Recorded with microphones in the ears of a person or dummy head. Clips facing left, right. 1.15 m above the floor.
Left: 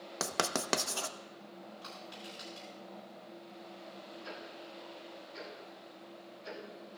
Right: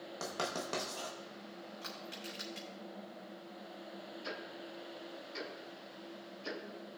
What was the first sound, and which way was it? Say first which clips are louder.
Writing: left 4 dB; 70° left (ahead or behind).